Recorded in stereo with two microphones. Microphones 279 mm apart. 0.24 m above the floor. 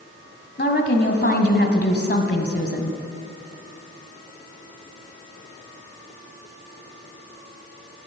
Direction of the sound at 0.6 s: 40° left (ahead or behind).